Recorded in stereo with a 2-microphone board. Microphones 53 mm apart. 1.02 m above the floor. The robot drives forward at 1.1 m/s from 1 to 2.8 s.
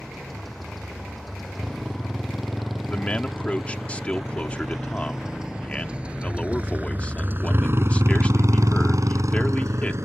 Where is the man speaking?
25° left (ahead or behind).